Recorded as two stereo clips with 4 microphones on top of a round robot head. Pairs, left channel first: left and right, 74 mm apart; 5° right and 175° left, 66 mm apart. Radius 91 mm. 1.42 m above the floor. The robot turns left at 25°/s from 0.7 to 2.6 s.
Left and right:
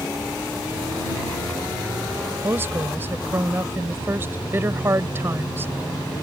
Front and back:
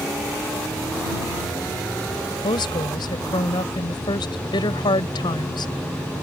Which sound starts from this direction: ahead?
A woman speaking, at 2.4 s.